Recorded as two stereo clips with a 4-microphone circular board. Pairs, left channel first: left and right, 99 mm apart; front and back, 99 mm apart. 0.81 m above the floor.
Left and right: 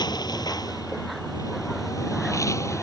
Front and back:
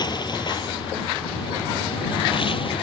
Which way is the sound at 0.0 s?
45° left.